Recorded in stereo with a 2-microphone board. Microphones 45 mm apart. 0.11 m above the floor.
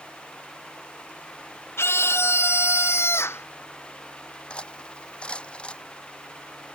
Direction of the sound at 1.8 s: 70° left (ahead or behind).